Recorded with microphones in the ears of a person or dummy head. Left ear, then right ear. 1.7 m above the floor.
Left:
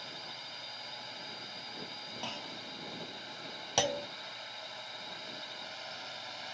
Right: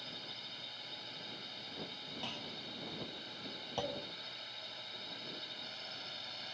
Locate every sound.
0.0 s a drone: 30° left (ahead or behind)
2.2 s a clunk: 25° left (ahead or behind)
3.8 s a clunk: 65° left (ahead or behind)